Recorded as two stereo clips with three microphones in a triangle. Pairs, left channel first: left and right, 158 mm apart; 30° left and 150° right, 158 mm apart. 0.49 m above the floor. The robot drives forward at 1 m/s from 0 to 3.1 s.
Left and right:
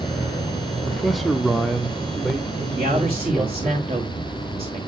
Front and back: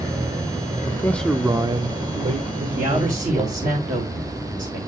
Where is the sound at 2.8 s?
125° right, 2.0 m; by 4.8 s 135° right, 2 m.